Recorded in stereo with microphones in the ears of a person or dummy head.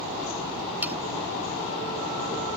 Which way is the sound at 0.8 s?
10° right (ahead or behind).